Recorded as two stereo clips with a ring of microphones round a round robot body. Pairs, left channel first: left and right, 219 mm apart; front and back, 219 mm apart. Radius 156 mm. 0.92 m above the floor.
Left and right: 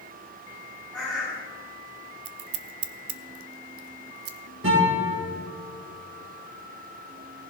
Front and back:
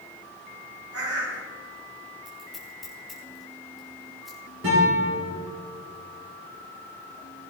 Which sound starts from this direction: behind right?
A guitar, at 4.6 s.